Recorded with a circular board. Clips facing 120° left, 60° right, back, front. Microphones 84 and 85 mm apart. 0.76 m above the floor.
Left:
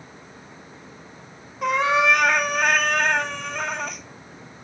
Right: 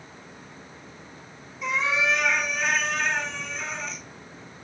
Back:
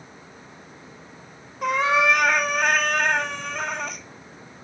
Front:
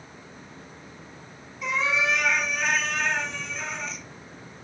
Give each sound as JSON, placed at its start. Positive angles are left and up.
{"t": 1.6, "sound": "a cat meowing", "azimuth_deg": 150, "distance_m": 0.6}